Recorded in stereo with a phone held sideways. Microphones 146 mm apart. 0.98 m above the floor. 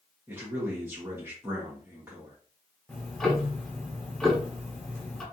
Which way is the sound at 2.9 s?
5° left (ahead or behind).